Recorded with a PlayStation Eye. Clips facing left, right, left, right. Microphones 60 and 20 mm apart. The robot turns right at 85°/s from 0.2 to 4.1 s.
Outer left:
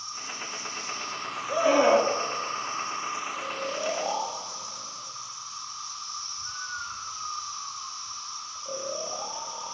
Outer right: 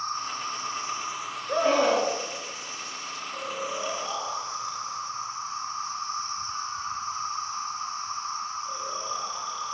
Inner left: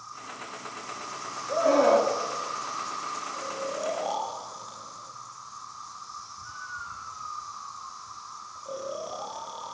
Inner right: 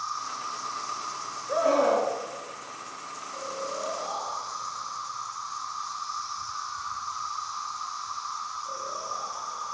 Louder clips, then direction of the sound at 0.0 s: Outer right 7 dB, inner right 8 dB; 100° right.